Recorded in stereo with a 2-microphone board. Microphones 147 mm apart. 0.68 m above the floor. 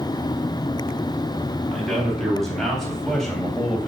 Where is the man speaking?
Centre (ahead or behind), 4.5 m; by 3.9 s 5° left (ahead or behind), 3 m.